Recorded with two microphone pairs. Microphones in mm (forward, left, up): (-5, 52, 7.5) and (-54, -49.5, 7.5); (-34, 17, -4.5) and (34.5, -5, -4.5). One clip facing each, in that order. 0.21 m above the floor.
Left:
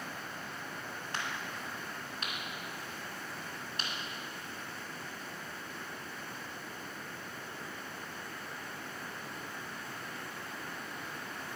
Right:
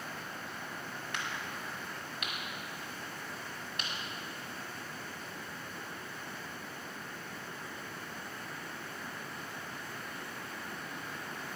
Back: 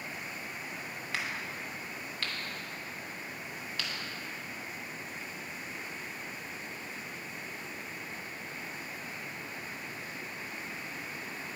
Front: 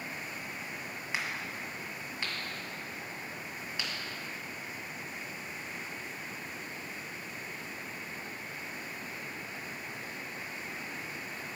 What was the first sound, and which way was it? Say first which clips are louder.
A crack: left 1 dB, even; 45° left.